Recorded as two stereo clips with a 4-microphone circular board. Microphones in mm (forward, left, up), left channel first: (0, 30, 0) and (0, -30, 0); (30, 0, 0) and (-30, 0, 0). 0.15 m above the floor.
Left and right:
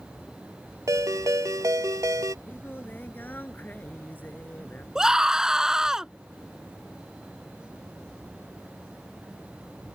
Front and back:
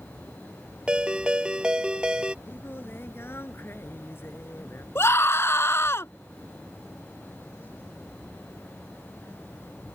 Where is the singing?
40° left.